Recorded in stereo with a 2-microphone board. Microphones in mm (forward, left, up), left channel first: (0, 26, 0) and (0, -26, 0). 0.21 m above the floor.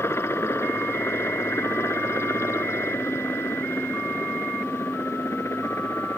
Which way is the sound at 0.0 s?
55° left (ahead or behind).